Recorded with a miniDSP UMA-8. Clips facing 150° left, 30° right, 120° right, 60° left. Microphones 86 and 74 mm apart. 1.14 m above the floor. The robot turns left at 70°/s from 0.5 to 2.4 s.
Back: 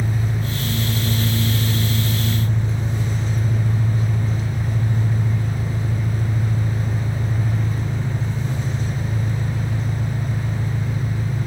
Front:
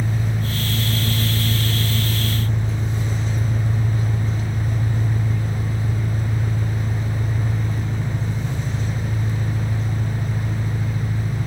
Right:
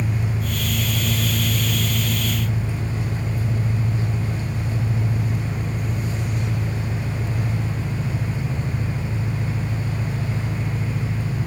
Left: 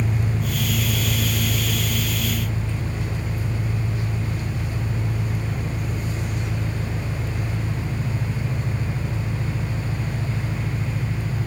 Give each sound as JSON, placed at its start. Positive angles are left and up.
{"t": 0.0, "sound": "an engine running", "azimuth_deg": 65, "distance_m": 2.5}